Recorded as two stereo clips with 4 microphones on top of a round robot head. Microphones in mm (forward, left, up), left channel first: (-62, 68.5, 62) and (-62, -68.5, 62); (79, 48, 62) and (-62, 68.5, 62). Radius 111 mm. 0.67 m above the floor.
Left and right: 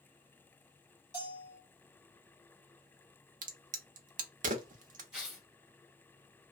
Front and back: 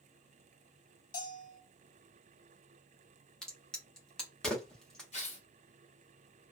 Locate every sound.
1.1 s a bell: 5° left, 1.5 m
3.4 s a crack: 95° right, 0.6 m
5.1 s tearing paper: 5° right, 1.7 m